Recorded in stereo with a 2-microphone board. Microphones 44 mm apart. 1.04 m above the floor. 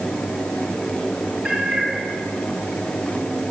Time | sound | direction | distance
1.4 | a cat meowing | 10° right (ahead or behind) | 5 m